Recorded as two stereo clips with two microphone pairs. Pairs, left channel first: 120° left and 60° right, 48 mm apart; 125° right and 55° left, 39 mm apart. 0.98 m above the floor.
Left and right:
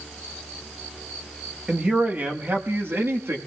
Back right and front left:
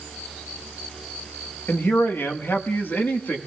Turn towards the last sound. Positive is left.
turn(degrees=-90)